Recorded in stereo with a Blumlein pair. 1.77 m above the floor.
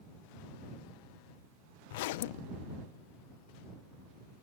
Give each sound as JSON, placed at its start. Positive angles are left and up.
{"t": 1.9, "sound": "a zipper", "azimuth_deg": 50}